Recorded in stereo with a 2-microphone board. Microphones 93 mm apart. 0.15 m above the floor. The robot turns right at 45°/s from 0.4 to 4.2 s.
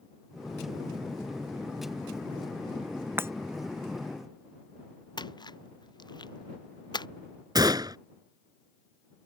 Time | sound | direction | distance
3.2 | breaking glass | 25° right (ahead or behind) | ?
5.2 | a splash | 50° left (ahead or behind) | ?
7.5 | a gunshot | 45° right (ahead or behind) | ?